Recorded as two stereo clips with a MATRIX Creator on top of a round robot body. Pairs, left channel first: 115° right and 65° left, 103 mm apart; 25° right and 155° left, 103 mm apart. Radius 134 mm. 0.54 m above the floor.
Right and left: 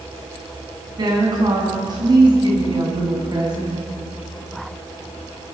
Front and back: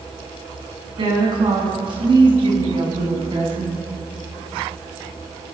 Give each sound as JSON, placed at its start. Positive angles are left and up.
{"t": 1.0, "sound": "a woman speaking", "azimuth_deg": 120, "distance_m": 6.5}